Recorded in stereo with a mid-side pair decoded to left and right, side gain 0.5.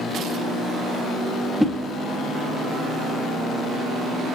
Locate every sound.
1.6 s a whoosh: 5° right, 0.9 m